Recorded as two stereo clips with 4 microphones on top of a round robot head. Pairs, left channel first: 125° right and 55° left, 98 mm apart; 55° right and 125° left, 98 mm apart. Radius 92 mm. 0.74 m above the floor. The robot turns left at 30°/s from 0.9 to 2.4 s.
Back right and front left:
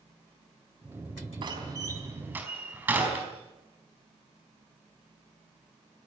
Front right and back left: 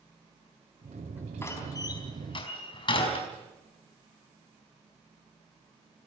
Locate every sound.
1.4 s a door slam: 10° left, 4.5 m; by 3.2 s 20° right, 4.5 m